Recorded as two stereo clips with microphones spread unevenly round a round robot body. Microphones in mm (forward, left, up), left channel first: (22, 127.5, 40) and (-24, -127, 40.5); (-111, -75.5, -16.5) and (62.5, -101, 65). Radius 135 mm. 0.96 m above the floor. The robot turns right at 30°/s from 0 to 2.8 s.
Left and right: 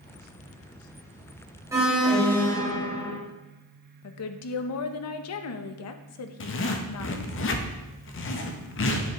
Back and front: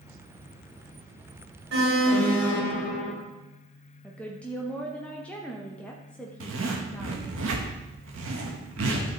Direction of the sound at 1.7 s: 20° right.